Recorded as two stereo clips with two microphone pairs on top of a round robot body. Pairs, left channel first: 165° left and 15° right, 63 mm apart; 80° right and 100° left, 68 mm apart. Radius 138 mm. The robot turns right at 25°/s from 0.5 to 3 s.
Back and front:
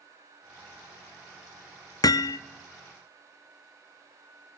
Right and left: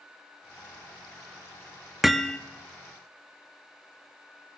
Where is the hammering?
170° right, 0.6 m; by 2.4 s 160° right, 0.6 m.